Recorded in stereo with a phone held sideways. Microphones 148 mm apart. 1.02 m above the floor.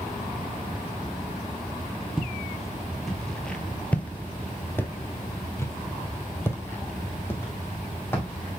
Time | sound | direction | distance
2.2 | footsteps | centre (ahead or behind) | 1.5 m